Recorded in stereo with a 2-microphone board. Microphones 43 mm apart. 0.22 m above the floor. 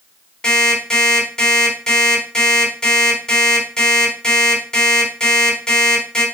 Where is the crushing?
No crushing in this recording.